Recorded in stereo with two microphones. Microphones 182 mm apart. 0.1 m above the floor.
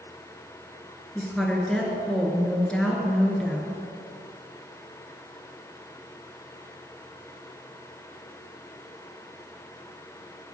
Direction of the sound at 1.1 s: 5° left (ahead or behind).